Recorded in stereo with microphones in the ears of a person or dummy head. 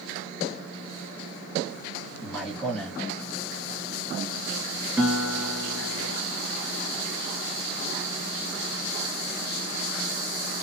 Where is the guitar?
15° right (ahead or behind), 2.5 m.